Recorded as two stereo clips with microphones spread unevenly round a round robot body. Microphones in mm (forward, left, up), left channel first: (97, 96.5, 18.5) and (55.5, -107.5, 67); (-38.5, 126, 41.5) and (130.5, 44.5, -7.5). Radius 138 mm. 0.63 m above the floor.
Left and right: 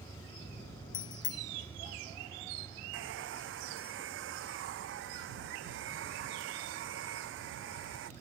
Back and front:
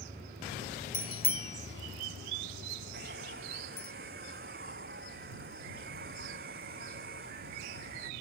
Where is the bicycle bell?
110° left; by 3.9 s 160° left.